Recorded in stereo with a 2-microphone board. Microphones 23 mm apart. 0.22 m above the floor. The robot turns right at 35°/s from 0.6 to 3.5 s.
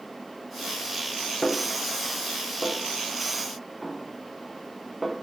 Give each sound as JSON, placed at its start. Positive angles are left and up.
{"t": 1.4, "sound": "a snare drum", "side_deg": 50, "distance_m": 2.5}